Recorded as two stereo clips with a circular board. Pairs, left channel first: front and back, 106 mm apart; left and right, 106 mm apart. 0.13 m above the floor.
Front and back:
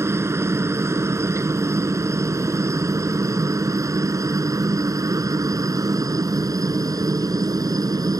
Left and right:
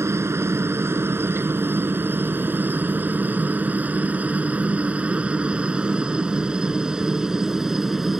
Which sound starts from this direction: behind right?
A helicopter, at 0.0 s.